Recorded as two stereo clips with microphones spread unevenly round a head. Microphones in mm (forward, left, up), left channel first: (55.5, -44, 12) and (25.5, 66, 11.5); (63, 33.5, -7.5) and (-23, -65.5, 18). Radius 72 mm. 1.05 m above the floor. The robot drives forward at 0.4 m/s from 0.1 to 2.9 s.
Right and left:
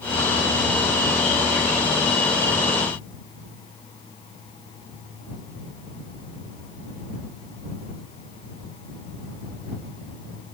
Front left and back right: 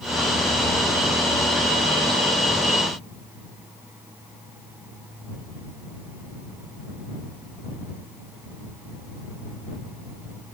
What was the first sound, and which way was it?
Only background noise.